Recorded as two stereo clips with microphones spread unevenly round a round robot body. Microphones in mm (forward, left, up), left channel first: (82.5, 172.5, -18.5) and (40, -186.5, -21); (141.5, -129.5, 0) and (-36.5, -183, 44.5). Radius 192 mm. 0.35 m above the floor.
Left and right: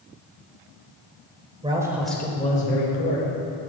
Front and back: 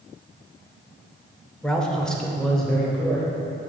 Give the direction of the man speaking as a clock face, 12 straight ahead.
1 o'clock.